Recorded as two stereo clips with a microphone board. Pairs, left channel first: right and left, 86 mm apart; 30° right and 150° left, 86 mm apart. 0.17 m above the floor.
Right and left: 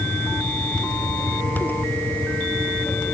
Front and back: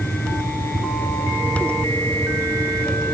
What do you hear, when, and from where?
Only background noise.